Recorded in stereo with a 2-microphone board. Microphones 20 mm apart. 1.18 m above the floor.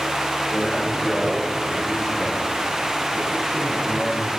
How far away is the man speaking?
About 4 m.